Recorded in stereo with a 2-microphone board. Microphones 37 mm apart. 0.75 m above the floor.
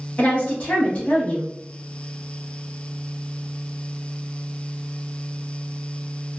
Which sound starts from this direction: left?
A woman speaking, at 0.2 s.